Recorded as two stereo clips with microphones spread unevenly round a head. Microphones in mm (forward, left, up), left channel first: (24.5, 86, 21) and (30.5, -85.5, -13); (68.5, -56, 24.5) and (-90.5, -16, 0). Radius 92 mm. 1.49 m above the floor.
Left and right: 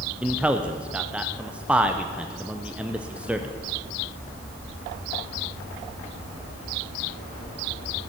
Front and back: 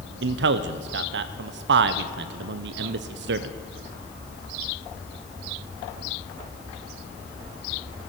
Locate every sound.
0.2 s a man speaking: 175° right, 0.6 m